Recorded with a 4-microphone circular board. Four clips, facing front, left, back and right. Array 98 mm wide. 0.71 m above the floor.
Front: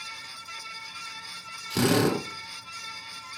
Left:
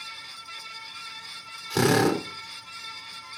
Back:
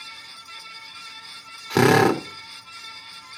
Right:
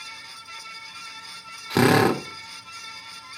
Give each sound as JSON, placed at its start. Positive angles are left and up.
{"t": 1.7, "sound": "a drill", "azimuth_deg": -145, "distance_m": 1.9}